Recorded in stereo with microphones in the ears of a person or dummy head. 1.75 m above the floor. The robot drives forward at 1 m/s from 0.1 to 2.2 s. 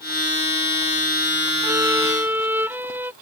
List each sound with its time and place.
1.6 s a violin: 15° right (ahead or behind); by 3.1 s 10° right (ahead or behind)